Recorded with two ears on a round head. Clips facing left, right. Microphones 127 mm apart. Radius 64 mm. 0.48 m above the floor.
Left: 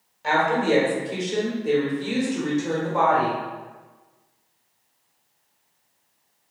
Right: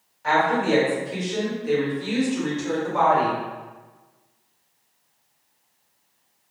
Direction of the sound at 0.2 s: 30° left (ahead or behind).